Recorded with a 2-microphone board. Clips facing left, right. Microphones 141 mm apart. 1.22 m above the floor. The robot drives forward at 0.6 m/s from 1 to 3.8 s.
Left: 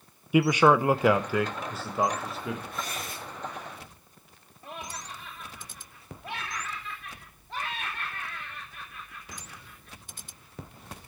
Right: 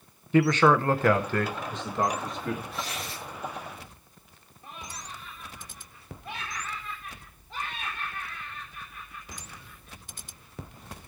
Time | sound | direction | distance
0.3 | a man speaking | 10° left (ahead or behind) | 0.5 m
2.7 | tearing paper | 50° left (ahead or behind) | 6 m
4.6 | laughter | 70° left (ahead or behind) | 3 m